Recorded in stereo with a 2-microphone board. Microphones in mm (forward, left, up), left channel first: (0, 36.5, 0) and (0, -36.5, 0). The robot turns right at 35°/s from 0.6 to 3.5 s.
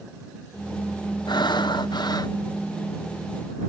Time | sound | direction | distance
1.3 | breathing | 80° left | ?